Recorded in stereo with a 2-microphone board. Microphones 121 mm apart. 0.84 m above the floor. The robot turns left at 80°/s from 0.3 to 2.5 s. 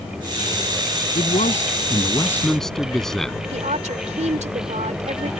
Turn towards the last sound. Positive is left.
turn(degrees=-80)